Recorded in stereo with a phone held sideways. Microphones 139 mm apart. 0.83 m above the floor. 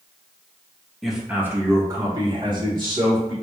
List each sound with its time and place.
1.0 s a man speaking: centre (ahead or behind), 0.8 m; by 3.3 s 35° right (ahead or behind), 2 m